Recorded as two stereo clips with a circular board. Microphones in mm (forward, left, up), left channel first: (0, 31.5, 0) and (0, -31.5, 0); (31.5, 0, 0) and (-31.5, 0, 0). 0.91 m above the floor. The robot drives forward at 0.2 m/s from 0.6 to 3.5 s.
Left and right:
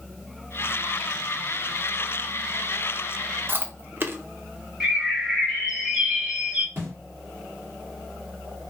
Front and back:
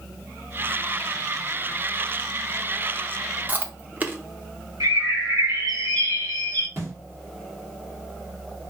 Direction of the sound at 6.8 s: 140° right.